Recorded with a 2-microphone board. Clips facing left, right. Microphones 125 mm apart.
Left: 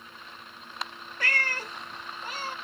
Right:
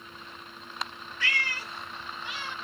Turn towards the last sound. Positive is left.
turn(degrees=40)  # may be behind; listen again after turning